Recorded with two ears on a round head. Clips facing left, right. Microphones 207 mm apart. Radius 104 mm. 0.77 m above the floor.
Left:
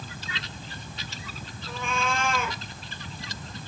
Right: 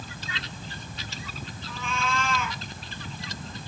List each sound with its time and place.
1.7 s a cat meowing: 50° left (ahead or behind), 2.5 m